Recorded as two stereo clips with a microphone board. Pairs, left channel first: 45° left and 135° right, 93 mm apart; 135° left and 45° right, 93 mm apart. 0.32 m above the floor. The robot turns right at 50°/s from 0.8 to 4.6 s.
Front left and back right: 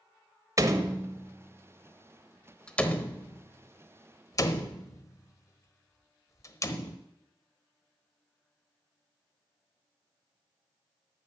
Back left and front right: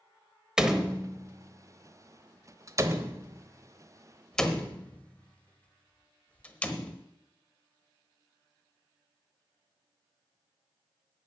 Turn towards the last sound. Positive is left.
turn(degrees=70)